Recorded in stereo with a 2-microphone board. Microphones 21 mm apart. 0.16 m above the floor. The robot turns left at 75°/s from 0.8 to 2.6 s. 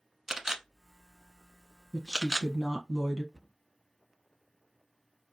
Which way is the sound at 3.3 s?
5° right (ahead or behind).